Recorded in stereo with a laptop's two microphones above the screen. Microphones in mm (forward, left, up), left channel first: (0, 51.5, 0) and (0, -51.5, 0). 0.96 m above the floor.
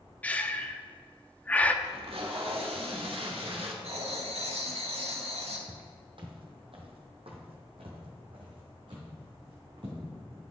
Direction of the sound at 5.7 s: 45° right (ahead or behind).